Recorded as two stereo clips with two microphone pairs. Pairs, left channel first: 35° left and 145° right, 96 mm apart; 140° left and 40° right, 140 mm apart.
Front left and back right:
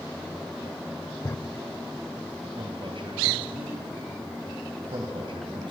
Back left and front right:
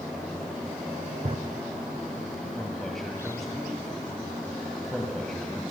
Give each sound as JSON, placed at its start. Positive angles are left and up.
{"t": 1.2, "sound": "a drawer", "azimuth_deg": -15, "distance_m": 0.5}
{"t": 2.6, "sound": "a man speaking", "azimuth_deg": -135, "distance_m": 2.5}